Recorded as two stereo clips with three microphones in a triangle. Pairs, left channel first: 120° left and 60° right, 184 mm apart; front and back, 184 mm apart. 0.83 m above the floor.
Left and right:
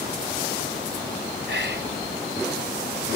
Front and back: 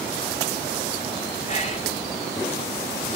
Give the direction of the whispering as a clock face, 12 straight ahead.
2 o'clock.